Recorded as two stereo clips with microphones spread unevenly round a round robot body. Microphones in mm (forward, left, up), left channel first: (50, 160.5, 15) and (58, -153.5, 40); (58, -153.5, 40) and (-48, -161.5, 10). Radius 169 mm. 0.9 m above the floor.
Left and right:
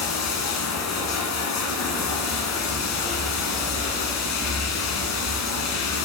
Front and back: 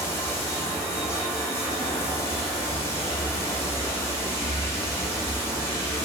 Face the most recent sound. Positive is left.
turn(degrees=60)